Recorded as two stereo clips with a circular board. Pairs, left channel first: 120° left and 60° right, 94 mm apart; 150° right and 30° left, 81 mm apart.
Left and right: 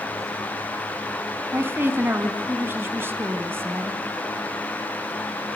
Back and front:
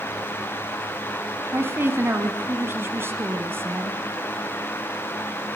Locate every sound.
1.5 s a woman speaking: 10° right, 1.9 m